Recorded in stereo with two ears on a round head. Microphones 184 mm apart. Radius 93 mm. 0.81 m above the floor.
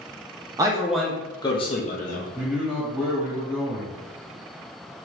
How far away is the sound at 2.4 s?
About 1.8 m.